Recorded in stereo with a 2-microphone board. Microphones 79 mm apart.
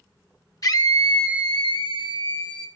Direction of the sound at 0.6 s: 50° left (ahead or behind).